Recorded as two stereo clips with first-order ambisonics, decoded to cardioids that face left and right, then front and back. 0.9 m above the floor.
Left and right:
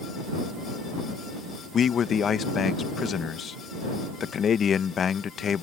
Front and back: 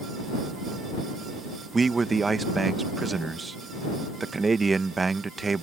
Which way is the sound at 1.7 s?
115° left.